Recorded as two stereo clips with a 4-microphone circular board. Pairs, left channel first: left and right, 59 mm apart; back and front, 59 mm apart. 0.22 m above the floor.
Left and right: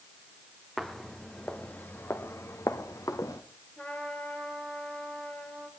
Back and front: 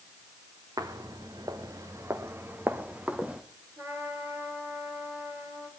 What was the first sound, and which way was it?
Footsteps, straight ahead.